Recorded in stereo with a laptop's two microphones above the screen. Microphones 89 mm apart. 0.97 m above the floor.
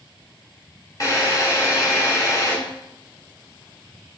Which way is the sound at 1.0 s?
40° left (ahead or behind).